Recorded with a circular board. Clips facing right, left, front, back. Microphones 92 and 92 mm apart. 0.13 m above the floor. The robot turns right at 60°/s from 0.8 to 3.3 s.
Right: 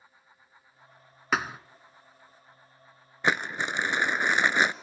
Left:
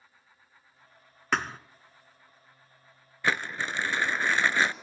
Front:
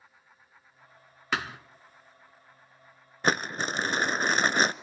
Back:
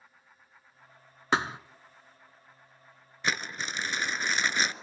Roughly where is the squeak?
No squeak in this recording.